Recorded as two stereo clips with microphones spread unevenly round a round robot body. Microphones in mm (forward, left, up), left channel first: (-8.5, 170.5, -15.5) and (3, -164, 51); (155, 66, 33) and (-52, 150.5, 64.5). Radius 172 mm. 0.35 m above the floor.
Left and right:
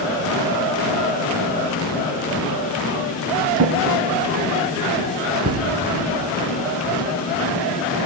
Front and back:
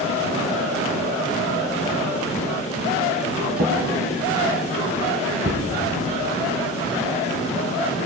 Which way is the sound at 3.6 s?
140° right.